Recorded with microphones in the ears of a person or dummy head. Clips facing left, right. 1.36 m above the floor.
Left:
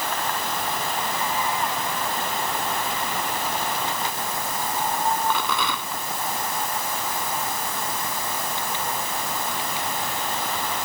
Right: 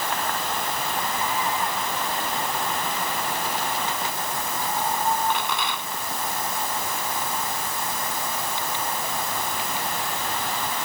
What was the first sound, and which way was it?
A rattle, 80° left.